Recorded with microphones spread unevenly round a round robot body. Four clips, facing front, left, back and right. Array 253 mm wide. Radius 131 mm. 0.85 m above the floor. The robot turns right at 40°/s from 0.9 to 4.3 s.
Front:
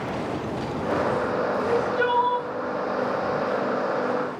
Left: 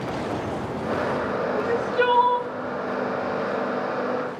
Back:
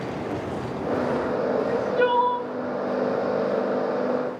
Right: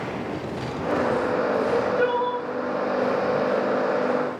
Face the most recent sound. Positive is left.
turn(degrees=-175)